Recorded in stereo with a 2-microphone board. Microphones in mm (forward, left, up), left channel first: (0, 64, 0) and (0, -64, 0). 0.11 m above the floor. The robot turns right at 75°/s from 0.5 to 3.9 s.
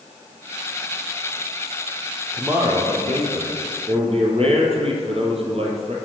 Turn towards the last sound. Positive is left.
turn(degrees=-60)